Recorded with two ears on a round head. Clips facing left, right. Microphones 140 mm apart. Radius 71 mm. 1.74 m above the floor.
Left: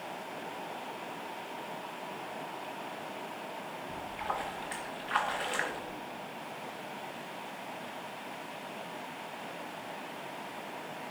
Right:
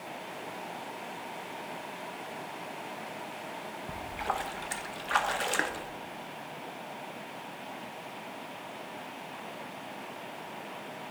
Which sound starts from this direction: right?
A splash, at 3.9 s.